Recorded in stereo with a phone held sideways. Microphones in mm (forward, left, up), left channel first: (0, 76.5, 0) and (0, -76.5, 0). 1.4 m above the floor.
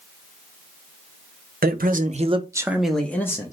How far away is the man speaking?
About 0.7 m.